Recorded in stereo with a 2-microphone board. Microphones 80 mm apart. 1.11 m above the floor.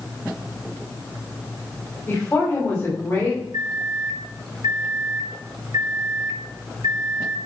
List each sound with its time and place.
2.1 s a woman speaking: 20° left (ahead or behind), 5.5 m
3.5 s a microwave: 60° right (ahead or behind), 0.7 m